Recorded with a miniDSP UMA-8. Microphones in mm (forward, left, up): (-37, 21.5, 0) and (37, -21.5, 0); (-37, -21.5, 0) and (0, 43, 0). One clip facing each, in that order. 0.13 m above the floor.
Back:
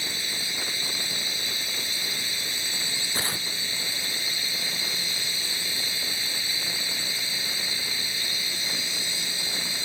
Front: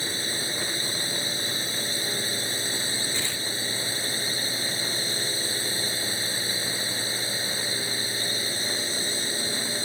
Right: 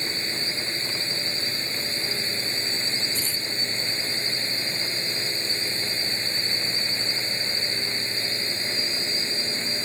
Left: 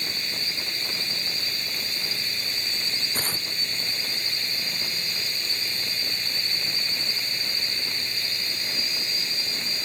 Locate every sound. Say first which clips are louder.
0.0 s a drone: front 3 dB, right 3 dB; 70° right
3.1 s tearing paper: back 1 dB, left 1 dB; 100° left